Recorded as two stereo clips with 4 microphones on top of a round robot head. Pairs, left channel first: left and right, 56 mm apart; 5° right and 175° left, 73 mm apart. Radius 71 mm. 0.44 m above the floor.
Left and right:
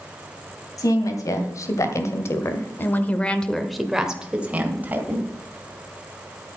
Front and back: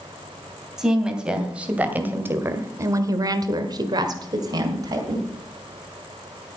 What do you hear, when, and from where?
0.8 s a woman speaking: 95° left, 2.5 m; by 5.3 s 140° right, 2.5 m